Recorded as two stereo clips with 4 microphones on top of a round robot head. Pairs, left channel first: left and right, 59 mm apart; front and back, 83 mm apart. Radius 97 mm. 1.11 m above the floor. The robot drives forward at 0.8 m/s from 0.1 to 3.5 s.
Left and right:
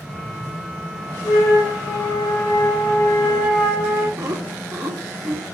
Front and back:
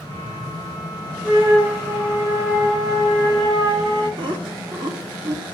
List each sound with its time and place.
1.2 s a flute: 105° left, 2.5 m; by 4.1 s 135° left, 3.5 m
4.2 s laughter: 150° right, 1.7 m